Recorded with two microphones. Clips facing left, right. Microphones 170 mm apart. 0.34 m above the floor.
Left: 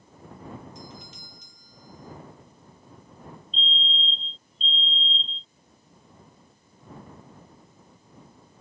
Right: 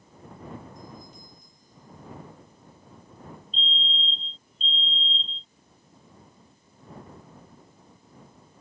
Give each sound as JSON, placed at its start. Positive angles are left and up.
{"t": 0.8, "sound": "a doorbell", "side_deg": 80}
{"t": 3.5, "sound": "a fire alarm", "side_deg": 0}